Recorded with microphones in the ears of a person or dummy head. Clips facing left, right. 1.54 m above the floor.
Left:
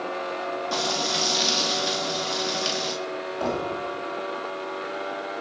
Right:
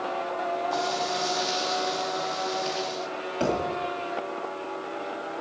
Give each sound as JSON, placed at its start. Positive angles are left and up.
{"t": 0.7, "sound": "frying", "side_deg": 60, "distance_m": 4.0}
{"t": 3.4, "sound": "a thud", "side_deg": -35, "distance_m": 2.5}